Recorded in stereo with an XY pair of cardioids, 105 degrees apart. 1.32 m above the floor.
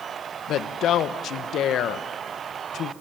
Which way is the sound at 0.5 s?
70° left.